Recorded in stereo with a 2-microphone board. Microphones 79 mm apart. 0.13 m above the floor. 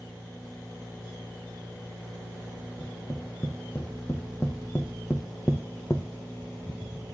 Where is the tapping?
30° left (ahead or behind), 2.5 m.